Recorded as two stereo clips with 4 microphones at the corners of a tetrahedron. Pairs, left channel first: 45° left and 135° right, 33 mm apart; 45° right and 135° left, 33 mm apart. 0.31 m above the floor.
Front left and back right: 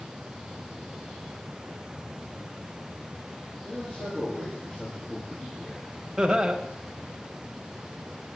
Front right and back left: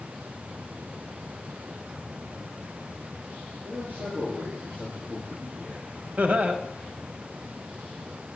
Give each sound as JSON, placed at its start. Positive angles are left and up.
{"t": 3.6, "sound": "a man speaking", "azimuth_deg": 100, "distance_m": 3.5}
{"t": 6.2, "sound": "laughter", "azimuth_deg": 145, "distance_m": 1.2}